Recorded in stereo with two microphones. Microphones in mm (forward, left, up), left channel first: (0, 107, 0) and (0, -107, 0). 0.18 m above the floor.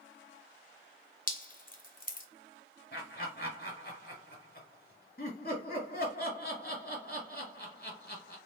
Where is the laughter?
45° left (ahead or behind), 2.5 m.